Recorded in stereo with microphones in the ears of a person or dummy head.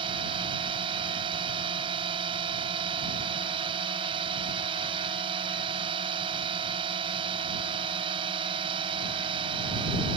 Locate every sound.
0.0 s a drone: 30° right (ahead or behind)